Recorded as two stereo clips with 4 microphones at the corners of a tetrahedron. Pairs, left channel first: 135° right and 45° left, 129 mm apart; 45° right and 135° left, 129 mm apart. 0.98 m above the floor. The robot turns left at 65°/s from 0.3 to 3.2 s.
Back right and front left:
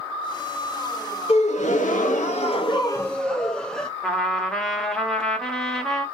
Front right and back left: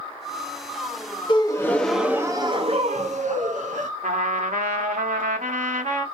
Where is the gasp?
95° right, 0.8 m; by 3.9 s 140° left, 0.8 m.